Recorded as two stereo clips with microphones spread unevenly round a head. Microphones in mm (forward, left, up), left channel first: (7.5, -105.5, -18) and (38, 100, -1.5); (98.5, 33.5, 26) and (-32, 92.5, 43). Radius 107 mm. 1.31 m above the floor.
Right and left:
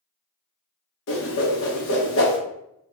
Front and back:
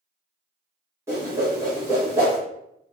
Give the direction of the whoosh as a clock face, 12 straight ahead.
4 o'clock.